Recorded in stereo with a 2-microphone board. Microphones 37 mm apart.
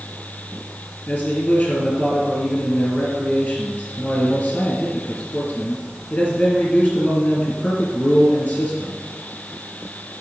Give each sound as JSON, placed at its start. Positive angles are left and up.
{"t": 1.1, "sound": "a man speaking", "side_deg": 35, "distance_m": 3.0}